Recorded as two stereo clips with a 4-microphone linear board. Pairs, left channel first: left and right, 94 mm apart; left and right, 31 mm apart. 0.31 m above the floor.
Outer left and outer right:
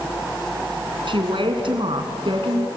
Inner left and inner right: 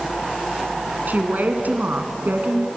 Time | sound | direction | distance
1.1 | a woman speaking | 65° right (ahead or behind) | 2.5 m